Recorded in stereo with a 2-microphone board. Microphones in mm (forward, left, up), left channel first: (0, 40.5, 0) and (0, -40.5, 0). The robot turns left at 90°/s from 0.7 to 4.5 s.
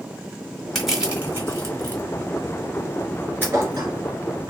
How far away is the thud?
About 1.2 m.